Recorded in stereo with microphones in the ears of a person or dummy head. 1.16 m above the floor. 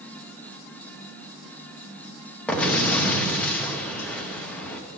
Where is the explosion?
5° left (ahead or behind), 0.8 m.